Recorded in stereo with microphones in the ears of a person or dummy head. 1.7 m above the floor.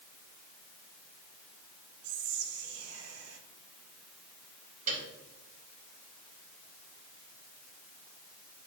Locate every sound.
2.0 s whispering: 90° right, 2 m
4.9 s a piano: 50° right (ahead or behind), 2.5 m